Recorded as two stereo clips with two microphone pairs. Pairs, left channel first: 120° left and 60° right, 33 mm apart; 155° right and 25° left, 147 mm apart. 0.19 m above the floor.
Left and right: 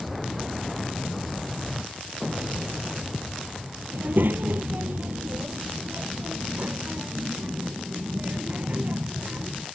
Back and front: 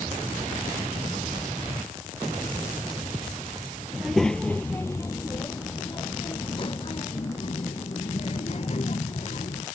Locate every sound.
3.9 s a child speaking: 60° right; by 9.6 s 110° right